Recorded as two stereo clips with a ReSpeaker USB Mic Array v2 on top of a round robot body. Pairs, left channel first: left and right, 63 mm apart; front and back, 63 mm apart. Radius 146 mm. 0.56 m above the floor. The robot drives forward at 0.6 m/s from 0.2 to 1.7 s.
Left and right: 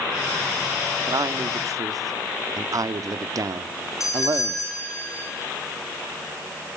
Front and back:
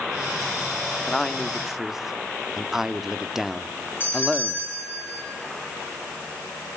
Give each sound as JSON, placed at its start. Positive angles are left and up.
{"t": 1.1, "sound": "a man speaking", "azimuth_deg": -80, "distance_m": 1.4}
{"t": 4.0, "sound": "a doorbell", "azimuth_deg": 60, "distance_m": 7.0}